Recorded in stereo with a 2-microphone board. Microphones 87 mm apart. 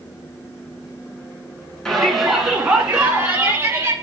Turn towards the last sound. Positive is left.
turn(degrees=-30)  # may be behind; listen again after turning